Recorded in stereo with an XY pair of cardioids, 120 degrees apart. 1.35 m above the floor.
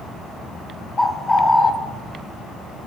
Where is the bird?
15° left, 0.6 m.